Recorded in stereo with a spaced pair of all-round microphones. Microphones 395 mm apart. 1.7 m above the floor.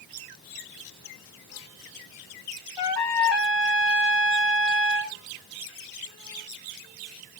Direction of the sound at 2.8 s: 85° left.